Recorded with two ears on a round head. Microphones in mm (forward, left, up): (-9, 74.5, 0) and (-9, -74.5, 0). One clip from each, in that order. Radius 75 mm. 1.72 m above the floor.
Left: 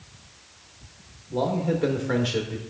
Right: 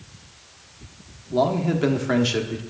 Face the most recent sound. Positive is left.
turn(degrees=-35)  # may be behind; listen again after turning